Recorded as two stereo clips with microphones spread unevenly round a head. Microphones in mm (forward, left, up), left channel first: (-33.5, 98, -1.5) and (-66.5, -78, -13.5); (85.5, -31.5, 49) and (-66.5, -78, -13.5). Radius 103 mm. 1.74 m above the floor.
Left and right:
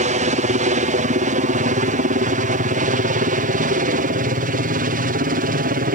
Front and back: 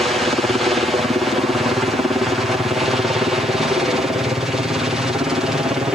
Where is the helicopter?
100° right.